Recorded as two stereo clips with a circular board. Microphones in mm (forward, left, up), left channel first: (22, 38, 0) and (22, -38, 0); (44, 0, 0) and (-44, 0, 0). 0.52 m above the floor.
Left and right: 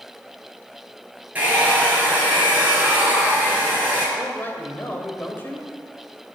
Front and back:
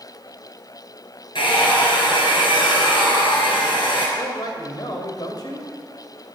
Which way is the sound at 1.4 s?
20° right.